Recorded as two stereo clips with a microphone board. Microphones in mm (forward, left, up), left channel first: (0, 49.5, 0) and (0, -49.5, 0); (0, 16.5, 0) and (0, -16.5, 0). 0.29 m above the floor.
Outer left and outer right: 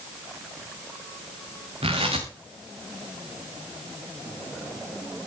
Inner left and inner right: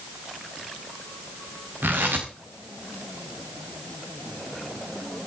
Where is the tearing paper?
75° right (ahead or behind), 4.5 m.